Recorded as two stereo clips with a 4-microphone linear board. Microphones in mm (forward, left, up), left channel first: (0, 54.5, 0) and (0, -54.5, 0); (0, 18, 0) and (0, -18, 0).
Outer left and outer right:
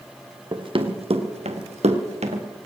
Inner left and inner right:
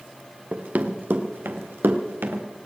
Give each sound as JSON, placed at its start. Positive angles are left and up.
{"t": 0.5, "sound": "running footsteps", "side_deg": -45, "distance_m": 2.0}